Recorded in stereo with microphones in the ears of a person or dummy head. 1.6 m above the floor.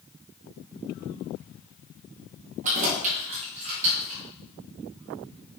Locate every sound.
2.6 s keys jangling: 40° right (ahead or behind), 1.5 m; by 4.2 s 30° right (ahead or behind), 3 m